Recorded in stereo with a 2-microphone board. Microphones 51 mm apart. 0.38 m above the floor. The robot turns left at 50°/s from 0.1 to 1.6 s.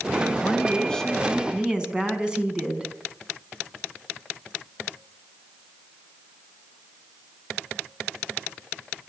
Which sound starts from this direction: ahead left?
A woman speaking, at 0.4 s.